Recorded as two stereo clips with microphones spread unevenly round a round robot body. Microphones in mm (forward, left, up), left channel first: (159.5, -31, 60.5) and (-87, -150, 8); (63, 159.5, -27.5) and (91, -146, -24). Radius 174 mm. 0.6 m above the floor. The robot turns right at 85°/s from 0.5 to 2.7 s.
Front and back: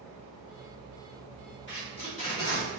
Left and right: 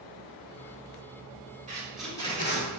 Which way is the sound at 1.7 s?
25° right.